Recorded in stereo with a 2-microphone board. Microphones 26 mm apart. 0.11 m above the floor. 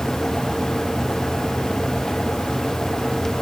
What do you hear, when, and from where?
Only background noise.